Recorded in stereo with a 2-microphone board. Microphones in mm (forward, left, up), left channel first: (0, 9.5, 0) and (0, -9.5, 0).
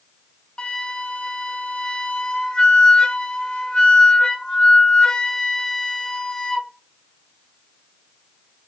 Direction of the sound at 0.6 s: 50° left (ahead or behind).